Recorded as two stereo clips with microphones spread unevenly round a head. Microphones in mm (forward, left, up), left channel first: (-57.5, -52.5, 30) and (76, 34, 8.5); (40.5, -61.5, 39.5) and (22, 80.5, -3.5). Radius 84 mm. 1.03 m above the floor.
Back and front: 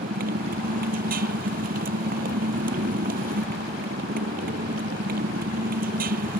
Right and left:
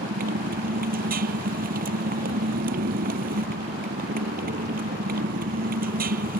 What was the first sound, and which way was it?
A motorcycle, 75° left.